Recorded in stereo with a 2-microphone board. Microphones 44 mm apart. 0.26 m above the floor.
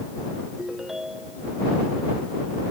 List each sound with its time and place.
0.6 s a ringtone: 10° right (ahead or behind)